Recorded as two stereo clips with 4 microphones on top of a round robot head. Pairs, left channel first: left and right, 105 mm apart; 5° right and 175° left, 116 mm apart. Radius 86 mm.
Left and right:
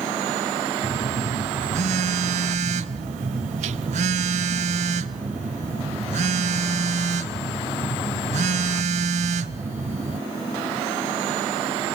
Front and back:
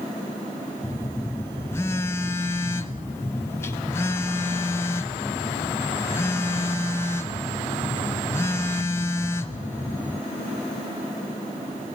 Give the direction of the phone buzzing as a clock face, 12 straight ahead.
3 o'clock.